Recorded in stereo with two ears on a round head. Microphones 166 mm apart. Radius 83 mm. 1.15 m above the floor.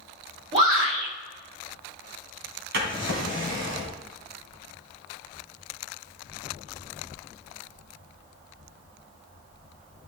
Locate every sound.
0.5 s a shout: 35° right (ahead or behind), 3.5 m
2.7 s a drawer: 65° right (ahead or behind), 2.5 m